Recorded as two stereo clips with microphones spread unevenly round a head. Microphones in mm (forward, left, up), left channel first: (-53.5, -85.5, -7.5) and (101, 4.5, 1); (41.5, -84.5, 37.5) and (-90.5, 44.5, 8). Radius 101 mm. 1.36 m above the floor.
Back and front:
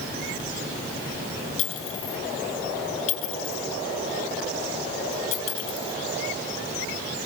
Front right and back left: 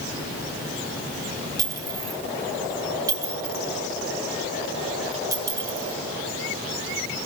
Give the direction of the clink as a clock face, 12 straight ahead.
5 o'clock.